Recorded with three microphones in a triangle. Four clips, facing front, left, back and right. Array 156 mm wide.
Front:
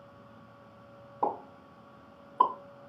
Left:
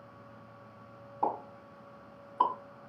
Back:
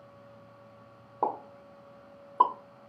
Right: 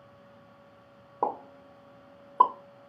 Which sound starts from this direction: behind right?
A pop, at 1.2 s.